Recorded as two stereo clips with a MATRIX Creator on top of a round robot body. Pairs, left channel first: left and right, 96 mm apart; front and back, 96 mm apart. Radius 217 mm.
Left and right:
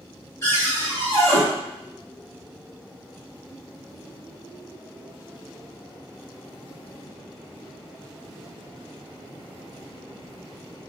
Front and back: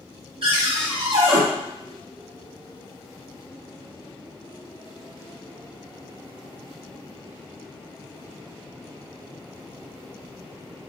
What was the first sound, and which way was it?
A cupboard door, 150° left.